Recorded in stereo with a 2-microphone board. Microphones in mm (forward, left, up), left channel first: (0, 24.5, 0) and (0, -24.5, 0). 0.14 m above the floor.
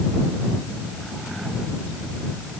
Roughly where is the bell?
I don't hear a bell.